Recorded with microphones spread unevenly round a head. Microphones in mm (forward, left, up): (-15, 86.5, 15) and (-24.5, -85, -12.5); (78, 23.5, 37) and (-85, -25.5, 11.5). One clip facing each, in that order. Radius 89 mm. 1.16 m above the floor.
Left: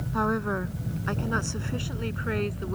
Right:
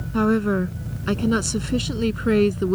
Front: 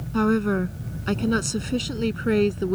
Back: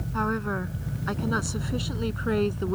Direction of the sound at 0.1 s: 35° right.